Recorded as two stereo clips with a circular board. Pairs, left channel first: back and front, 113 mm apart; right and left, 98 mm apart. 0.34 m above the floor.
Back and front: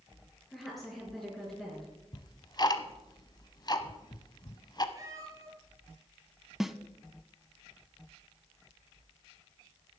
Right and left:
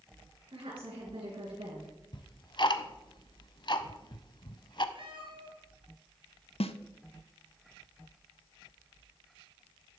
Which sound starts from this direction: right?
A snare drum, at 6.6 s.